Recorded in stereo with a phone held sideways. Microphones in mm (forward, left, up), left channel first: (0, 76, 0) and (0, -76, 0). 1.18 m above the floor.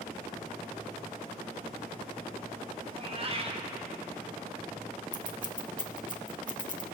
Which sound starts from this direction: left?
Scissors, at 5.1 s.